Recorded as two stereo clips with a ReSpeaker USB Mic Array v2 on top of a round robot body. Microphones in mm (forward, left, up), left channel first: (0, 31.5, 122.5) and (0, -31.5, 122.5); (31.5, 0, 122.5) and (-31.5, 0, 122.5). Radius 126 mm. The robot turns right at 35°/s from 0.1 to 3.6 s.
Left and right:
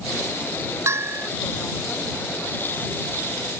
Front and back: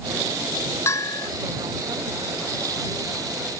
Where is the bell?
45° right; by 1.3 s 30° right.